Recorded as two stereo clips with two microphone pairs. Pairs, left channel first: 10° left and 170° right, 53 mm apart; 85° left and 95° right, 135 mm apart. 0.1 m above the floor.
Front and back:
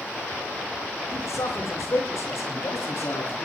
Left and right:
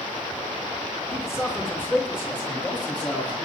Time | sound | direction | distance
1.1 | a man speaking | 15° left | 5.5 m